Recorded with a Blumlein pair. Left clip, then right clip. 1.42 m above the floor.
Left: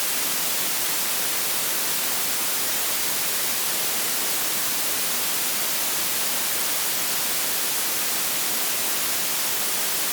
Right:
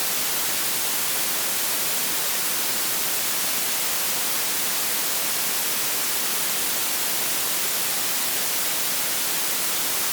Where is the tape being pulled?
No tape being pulled in this recording.